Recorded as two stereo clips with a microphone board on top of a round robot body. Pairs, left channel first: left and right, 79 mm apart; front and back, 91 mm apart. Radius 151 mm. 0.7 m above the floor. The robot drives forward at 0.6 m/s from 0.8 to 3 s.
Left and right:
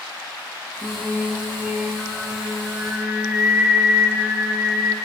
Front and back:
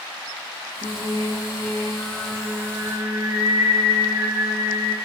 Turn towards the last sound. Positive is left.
turn(degrees=-155)